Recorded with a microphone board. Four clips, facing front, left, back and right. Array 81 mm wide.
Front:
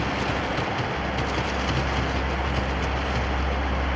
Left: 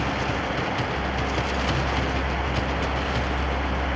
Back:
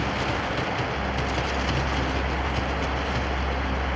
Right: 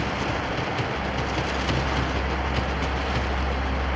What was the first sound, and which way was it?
Only background noise.